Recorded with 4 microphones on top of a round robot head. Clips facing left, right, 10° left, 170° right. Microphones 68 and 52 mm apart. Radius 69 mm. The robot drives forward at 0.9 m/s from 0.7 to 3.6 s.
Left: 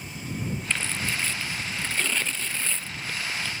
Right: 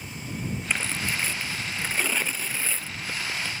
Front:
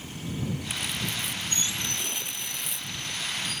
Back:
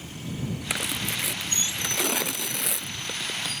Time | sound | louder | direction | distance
0.7 | tearing paper | right 1 dB, back 2 dB | 170° right | ?